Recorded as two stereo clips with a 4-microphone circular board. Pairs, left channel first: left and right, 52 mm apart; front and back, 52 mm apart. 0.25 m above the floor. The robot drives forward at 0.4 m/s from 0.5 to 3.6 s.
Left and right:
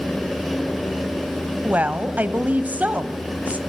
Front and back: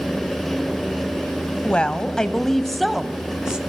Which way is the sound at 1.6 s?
55° right.